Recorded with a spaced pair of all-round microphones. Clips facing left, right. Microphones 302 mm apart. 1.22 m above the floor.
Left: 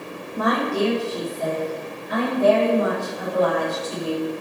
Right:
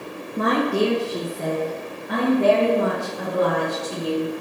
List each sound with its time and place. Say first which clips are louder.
0.4 s a woman speaking: right 2 dB; 25° right (ahead or behind), 0.7 m; by 4.3 s 80° right, 4 m